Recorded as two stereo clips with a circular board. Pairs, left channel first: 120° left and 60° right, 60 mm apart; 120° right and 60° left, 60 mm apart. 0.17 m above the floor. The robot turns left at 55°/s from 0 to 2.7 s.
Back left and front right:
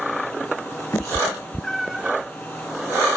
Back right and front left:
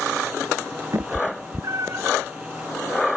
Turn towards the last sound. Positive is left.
turn(degrees=-20)